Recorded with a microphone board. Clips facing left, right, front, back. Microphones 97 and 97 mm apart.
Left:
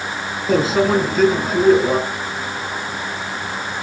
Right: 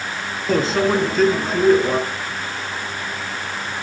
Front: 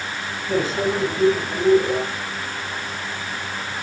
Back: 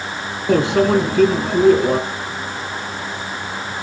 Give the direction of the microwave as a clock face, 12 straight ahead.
6 o'clock.